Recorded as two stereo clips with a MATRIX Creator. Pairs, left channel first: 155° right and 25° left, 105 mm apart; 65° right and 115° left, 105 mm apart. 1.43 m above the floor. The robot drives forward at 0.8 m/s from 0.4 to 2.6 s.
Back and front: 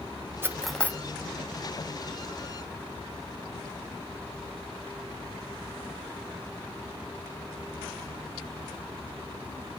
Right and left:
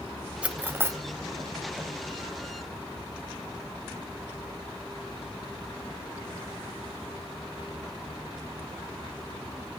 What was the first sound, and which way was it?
Cutlery clinking, 45° left.